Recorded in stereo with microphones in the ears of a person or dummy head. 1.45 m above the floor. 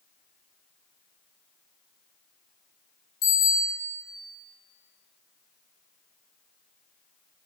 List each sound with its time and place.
3.2 s a bicycle bell: 50° left (ahead or behind), 4 m